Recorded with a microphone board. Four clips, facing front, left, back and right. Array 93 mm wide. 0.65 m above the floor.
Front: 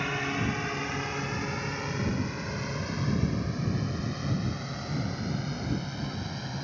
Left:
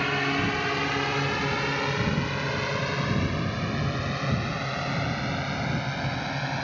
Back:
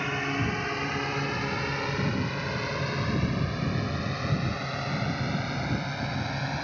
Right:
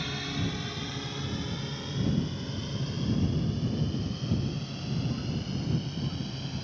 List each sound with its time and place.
0.0 s a drone: 95° left; by 6.6 s 120° left